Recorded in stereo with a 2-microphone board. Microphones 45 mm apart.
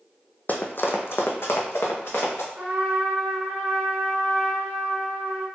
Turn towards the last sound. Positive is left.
turn(degrees=-25)  # may be behind; listen again after turning